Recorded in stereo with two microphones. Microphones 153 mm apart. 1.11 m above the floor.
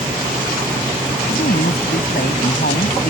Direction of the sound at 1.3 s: 85° left.